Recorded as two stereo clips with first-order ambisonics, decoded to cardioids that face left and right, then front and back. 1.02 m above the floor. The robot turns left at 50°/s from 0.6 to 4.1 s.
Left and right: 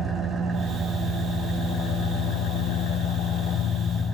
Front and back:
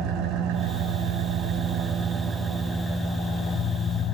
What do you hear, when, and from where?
0.0 s an engine running: 170° right, 2.5 m; by 4.2 s 15° left, 2.5 m